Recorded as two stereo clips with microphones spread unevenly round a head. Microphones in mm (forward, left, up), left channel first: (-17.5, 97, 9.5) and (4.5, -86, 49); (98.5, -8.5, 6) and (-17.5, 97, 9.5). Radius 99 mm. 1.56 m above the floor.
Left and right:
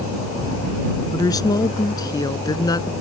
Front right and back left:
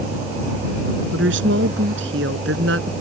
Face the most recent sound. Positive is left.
turn(degrees=170)